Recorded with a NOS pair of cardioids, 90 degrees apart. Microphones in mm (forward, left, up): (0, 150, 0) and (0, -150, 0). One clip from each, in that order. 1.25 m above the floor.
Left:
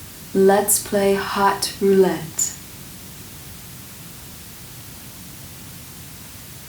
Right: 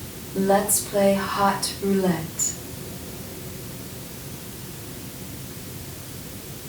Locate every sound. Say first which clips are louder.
0.3 s a woman speaking: left 5 dB; 65° left, 2.5 m